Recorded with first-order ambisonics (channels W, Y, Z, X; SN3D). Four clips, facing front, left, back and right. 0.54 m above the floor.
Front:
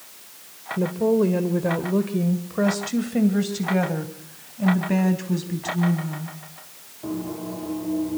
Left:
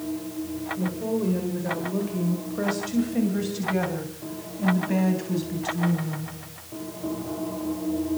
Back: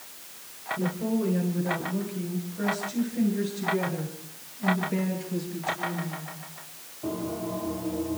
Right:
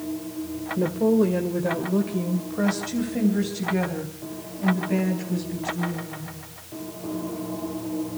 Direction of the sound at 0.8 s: 45° right.